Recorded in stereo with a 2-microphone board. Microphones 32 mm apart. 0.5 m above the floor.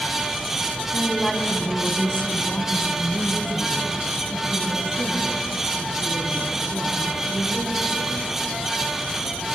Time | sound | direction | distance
0.9 | a woman speaking | 10° left (ahead or behind) | 3 m